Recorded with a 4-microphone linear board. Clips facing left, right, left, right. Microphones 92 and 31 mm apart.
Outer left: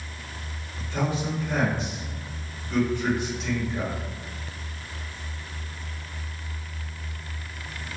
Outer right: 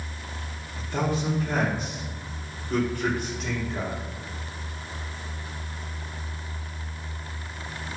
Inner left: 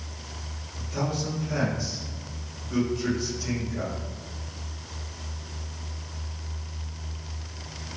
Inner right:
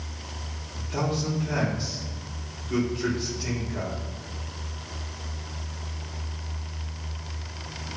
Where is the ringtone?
I don't hear a ringtone.